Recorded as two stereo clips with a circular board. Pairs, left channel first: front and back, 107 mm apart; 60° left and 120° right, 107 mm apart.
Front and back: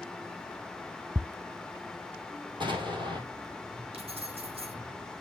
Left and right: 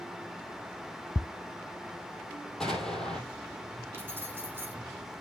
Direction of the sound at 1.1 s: 115° left.